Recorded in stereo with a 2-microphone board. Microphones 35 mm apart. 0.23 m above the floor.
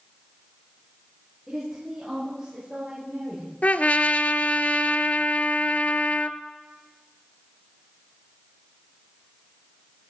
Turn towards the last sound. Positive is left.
turn(degrees=45)  # may be behind; listen again after turning